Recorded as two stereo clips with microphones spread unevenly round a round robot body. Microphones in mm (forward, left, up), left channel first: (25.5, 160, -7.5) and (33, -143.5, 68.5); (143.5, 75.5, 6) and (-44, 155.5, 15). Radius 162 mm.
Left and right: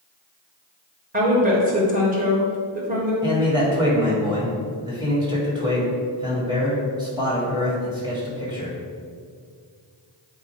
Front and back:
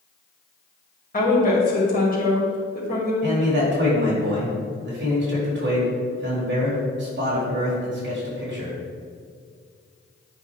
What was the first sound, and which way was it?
A woman speaking, 20° right.